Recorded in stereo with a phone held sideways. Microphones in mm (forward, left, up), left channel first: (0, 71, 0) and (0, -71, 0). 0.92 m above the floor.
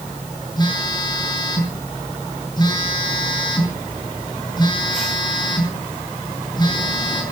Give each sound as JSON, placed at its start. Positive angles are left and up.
{"t": 0.6, "sound": "a phone buzzing", "side_deg": 30, "distance_m": 7.0}